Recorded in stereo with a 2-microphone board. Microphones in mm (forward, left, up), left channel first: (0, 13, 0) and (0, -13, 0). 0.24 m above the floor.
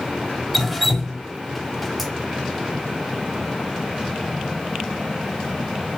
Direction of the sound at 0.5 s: 5° right (ahead or behind).